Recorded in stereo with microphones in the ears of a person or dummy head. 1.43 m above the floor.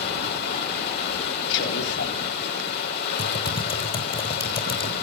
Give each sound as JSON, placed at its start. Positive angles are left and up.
{"t": 0.0, "sound": "running water", "side_deg": 55, "distance_m": 5.5}
{"t": 1.5, "sound": "a man speaking", "side_deg": 65, "distance_m": 4.5}
{"t": 3.2, "sound": "typing on a keyboard", "side_deg": 30, "distance_m": 3.5}